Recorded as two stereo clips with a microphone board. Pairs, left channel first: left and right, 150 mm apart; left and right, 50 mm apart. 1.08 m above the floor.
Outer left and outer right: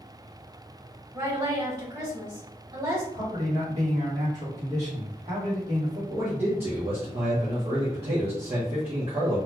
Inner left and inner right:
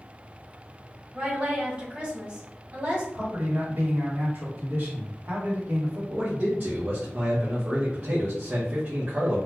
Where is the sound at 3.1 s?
50° right (ahead or behind), 1.9 m.